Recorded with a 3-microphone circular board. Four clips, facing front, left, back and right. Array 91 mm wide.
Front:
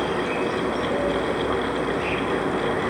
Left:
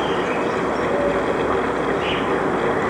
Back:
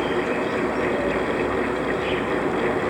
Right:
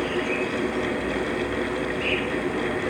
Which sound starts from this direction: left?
An insect, at 0.0 s.